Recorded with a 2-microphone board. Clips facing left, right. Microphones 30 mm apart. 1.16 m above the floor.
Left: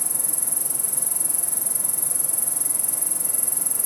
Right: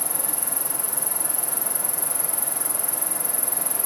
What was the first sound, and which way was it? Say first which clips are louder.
An insect: right 3 dB; 20° right (ahead or behind).